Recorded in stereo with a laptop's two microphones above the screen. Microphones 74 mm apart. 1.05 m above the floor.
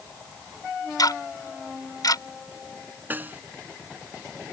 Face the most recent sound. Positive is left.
turn(degrees=-25)  # may be behind; listen again after turning